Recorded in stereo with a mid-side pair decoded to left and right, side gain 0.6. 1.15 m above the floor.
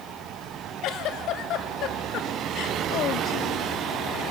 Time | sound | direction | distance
0.8 | a giggle | 60° left | 2 m